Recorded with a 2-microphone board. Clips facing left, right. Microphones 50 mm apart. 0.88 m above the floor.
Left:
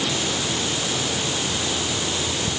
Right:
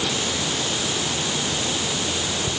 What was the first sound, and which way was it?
Only background noise.